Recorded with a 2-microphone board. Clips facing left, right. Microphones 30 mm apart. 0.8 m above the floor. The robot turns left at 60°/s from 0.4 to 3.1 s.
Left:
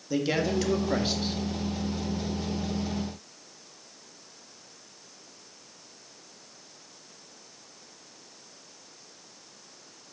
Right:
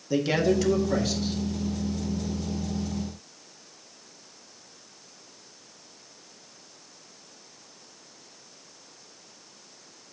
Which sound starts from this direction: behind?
A man speaking, at 0.1 s.